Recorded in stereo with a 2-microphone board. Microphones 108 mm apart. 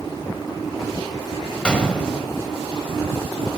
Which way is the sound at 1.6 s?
10° left (ahead or behind).